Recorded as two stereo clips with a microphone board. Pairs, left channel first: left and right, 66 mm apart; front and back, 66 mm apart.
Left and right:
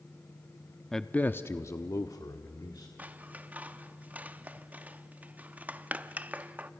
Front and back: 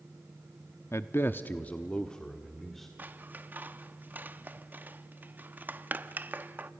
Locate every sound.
0.9 s a man speaking: 5° left, 0.7 m; by 2.9 s 85° left, 1.6 m
3.0 s scissors: 135° right, 0.6 m